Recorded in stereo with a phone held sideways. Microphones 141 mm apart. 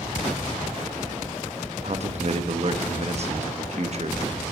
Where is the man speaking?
50° right (ahead or behind), 1.0 m.